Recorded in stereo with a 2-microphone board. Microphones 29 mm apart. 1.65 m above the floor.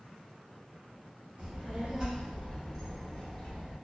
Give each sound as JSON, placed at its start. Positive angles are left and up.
{"t": 1.4, "sound": "a child speaking", "side_deg": -40, "distance_m": 1.2}